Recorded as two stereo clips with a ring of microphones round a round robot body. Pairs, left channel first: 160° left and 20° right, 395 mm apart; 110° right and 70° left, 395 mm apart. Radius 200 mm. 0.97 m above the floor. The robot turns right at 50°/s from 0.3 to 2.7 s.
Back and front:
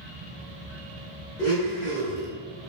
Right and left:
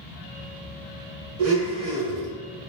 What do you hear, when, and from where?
1.4 s a blender: 75° left, 1.0 m; by 2.3 s 120° left, 1.0 m